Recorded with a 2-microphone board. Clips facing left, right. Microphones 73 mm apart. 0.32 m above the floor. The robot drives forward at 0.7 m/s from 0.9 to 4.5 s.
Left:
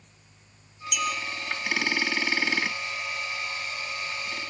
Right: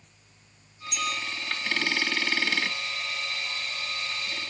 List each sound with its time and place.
0.9 s a clink: 30° right (ahead or behind), 5 m